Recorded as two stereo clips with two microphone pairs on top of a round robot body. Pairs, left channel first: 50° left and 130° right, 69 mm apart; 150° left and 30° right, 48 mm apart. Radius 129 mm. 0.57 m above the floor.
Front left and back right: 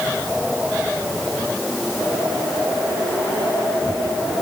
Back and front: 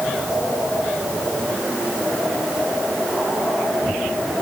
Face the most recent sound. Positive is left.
No sound to turn to.